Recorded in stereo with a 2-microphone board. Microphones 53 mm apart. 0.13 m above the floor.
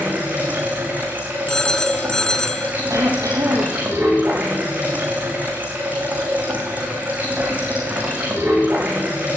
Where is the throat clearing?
70° right (ahead or behind), 5.5 m.